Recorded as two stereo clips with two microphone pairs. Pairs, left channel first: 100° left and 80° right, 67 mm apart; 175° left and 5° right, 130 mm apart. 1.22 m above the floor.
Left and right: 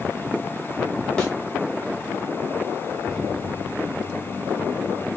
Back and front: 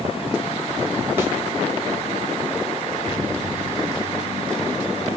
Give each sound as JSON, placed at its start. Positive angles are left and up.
{"t": 1.2, "sound": "a thud", "azimuth_deg": 50, "distance_m": 1.1}